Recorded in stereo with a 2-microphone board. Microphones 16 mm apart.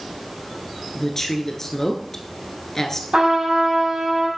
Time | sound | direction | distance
0.9 | a woman speaking | 25° left (ahead or behind) | 1.2 m
3.1 | a trumpet | 65° right (ahead or behind) | 4 m